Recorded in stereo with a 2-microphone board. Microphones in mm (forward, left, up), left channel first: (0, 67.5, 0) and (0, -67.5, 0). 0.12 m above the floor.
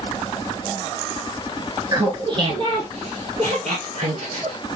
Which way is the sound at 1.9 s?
30° right (ahead or behind).